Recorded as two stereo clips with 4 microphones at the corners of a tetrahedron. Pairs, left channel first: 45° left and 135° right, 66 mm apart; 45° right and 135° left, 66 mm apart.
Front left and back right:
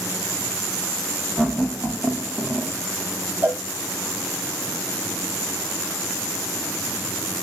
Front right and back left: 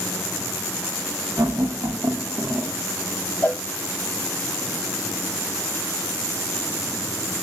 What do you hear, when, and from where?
1.4 s laughter: 135° left, 1.1 m; by 2.7 s 170° left, 0.6 m
3.4 s a cowbell: 100° right, 1.1 m